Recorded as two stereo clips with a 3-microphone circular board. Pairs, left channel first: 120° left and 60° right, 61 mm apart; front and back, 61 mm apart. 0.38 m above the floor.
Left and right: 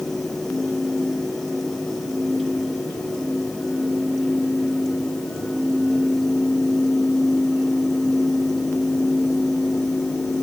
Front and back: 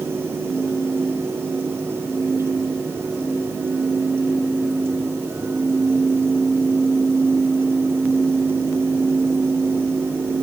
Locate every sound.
Only background noise.